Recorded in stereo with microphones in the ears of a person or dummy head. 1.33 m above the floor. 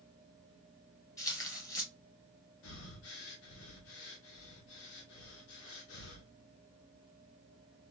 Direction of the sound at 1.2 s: 15° left (ahead or behind).